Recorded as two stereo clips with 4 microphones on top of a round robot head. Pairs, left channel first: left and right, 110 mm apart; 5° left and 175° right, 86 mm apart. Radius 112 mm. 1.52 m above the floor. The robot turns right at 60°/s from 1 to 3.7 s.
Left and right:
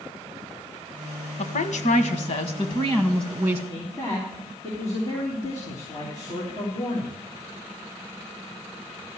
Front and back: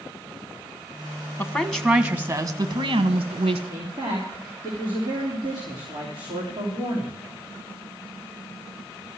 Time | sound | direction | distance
1.4 | a woman speaking | 65° left | 1.2 m
3.7 | a man speaking | 150° left | 3 m